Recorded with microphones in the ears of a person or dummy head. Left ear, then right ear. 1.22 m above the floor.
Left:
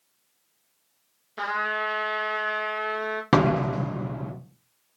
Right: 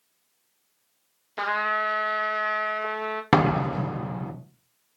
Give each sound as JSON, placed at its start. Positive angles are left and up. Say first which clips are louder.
{"t": 1.4, "sound": "a trumpet", "louder": "right 2 dB", "side_deg": -20, "distance_m": 0.8}
{"t": 3.3, "sound": "a door slam", "louder": "even", "side_deg": -30, "distance_m": 1.0}